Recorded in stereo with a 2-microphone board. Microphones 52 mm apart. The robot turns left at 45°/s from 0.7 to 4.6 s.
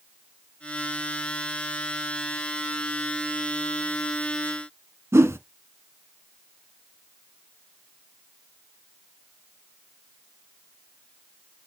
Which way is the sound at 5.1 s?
60° right (ahead or behind).